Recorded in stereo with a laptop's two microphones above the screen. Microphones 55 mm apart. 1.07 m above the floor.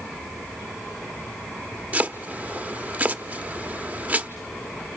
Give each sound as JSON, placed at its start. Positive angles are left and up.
{"t": 1.9, "sound": "chopping", "side_deg": -30, "distance_m": 0.7}